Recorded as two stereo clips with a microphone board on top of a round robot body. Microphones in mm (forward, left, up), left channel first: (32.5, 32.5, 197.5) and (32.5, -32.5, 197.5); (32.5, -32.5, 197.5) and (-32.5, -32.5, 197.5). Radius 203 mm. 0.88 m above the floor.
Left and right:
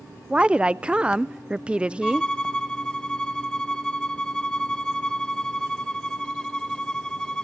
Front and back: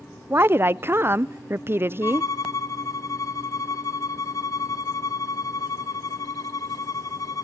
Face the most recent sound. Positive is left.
turn(degrees=10)